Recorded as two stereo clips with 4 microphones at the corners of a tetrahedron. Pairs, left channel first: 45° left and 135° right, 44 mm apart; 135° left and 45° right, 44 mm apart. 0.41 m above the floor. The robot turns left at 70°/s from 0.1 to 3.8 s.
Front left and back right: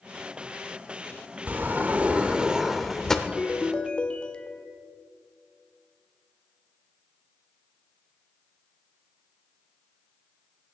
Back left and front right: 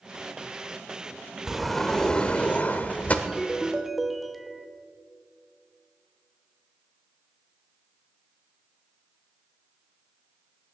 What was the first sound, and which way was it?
A sliding door, 125° right.